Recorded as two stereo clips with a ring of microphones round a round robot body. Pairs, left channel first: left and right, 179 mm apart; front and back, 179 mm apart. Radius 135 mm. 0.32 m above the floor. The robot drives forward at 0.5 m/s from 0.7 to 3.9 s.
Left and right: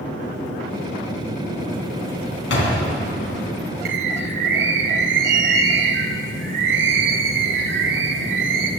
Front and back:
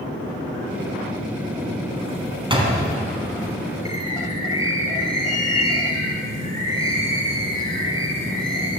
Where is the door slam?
120° left, 2.5 m.